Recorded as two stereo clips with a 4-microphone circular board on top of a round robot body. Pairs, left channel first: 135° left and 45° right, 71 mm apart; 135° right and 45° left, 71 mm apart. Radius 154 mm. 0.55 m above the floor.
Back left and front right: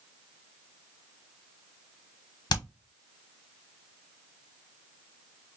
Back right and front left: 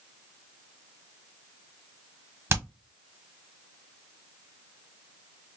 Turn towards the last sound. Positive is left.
turn(degrees=105)